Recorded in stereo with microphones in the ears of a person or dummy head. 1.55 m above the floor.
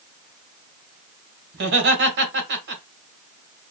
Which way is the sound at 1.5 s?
60° right (ahead or behind).